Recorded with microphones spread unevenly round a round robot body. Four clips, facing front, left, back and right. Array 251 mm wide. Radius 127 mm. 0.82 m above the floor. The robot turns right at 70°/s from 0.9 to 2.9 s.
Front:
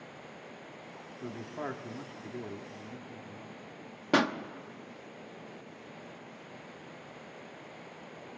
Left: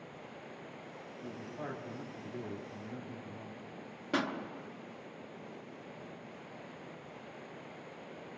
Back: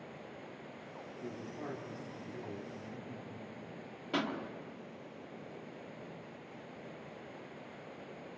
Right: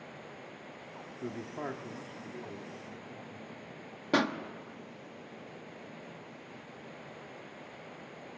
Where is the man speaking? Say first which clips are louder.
Right 5 dB, front 5 dB; 65° right, 2 m; by 3.6 s 50° left, 2 m.